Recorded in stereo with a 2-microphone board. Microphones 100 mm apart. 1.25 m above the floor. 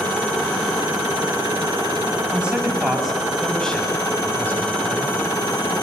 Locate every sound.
2.3 s a man speaking: 10° right (ahead or behind), 6.5 m; by 5.1 s 25° left (ahead or behind), 7.5 m